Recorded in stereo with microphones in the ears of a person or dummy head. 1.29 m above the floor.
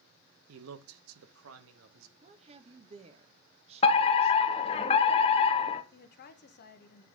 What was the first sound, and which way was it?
A man speaking, 70° right (ahead or behind).